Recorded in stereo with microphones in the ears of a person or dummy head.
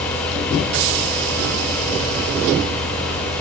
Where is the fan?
10° left (ahead or behind), 2 m.